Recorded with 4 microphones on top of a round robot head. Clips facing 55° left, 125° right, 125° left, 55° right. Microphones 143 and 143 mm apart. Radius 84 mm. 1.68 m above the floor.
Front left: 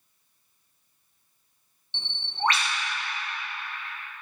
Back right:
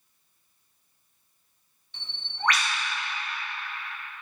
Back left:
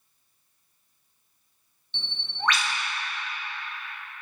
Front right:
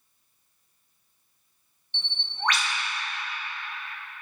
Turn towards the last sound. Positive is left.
turn(degrees=120)